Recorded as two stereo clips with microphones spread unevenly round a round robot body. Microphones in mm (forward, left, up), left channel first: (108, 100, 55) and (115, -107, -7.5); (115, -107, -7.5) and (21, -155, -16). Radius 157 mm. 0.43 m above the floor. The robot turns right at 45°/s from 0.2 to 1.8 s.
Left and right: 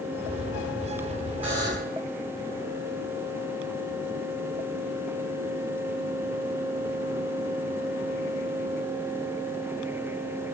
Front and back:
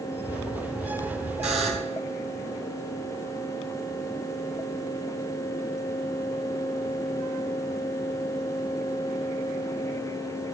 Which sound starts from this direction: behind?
A buzzer, at 1.4 s.